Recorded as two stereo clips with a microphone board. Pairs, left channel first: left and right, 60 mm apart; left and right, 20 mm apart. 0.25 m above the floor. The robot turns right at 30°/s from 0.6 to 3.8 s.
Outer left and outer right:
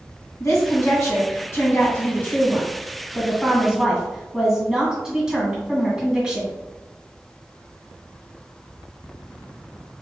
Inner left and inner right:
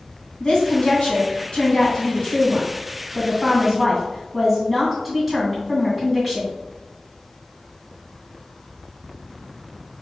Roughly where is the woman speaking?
Left.